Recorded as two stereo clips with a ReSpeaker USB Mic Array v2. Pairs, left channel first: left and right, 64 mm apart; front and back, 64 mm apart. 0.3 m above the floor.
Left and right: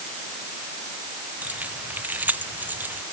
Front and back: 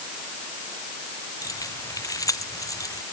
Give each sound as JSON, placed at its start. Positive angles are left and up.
{"t": 1.4, "sound": "keys jangling", "azimuth_deg": -25}